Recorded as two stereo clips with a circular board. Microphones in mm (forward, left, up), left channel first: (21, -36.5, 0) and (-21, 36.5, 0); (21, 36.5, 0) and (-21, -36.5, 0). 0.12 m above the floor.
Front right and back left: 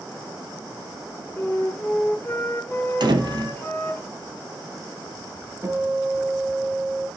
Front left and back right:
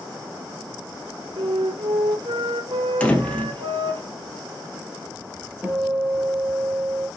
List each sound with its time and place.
1.4 s a flute: 130° right, 4 m
3.0 s a door slam: 135° left, 2 m
5.6 s a guitar: 165° left, 3 m